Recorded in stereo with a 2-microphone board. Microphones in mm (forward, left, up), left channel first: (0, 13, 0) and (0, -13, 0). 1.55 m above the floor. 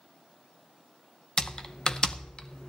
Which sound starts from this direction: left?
Typing on a keyboard, at 1.4 s.